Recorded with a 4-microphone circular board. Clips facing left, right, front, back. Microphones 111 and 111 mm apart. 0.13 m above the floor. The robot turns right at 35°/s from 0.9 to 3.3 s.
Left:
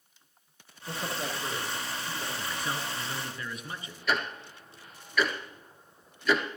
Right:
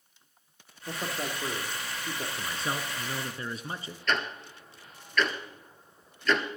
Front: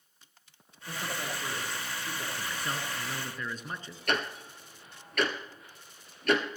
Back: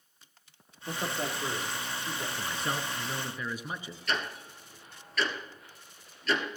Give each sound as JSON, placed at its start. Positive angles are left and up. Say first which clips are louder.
{"t": 0.9, "sound": "a man speaking", "louder": "even, back 3 dB", "azimuth_deg": -140, "distance_m": 3.5}
{"t": 2.4, "sound": "a man speaking", "louder": "right 1 dB, back 3 dB", "azimuth_deg": -140, "distance_m": 1.2}
{"t": 4.1, "sound": "ticking", "louder": "even, front 2 dB", "azimuth_deg": 10, "distance_m": 1.7}